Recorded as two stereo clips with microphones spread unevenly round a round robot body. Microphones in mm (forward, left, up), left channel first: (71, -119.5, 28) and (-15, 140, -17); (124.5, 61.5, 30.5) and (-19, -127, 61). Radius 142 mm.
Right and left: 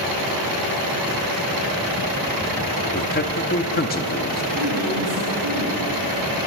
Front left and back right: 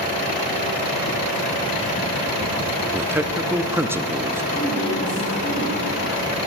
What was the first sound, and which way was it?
A man speaking, 40° right.